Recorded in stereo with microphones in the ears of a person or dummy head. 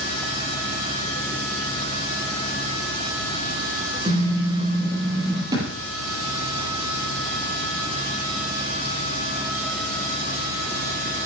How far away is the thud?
About 7 m.